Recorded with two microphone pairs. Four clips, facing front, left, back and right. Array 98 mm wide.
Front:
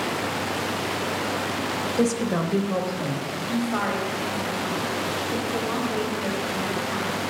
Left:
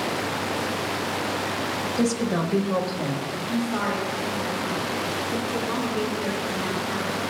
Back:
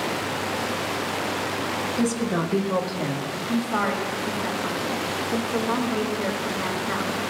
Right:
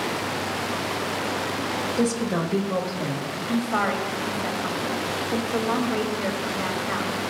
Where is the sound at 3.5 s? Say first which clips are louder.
Right 2 dB, back 1 dB; 100° right, 1.7 m.